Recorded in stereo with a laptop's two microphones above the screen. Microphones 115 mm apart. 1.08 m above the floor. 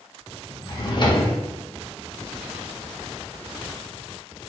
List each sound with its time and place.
0.7 s a drawer: 40° left (ahead or behind), 0.5 m